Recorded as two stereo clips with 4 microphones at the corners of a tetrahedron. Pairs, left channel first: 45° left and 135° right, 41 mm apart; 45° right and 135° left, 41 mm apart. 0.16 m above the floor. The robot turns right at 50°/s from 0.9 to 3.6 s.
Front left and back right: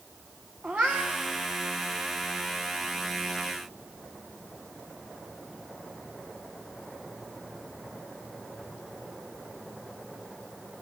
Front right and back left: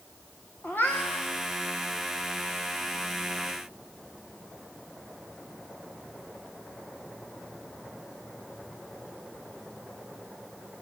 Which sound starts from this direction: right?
A cat meowing, at 0.6 s.